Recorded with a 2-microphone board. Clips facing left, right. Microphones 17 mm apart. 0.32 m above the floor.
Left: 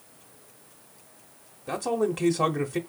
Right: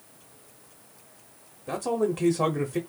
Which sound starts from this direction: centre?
A man speaking, at 1.7 s.